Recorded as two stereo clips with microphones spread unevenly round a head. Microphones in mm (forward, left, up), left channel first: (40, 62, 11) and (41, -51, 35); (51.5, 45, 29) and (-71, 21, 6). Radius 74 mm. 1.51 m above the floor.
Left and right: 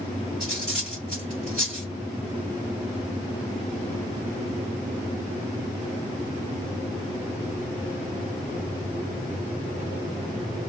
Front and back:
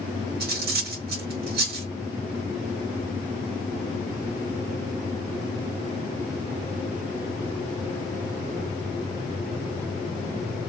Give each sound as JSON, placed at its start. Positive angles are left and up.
{"t": 0.4, "sound": "cutlery clinking", "azimuth_deg": -170, "distance_m": 1.5}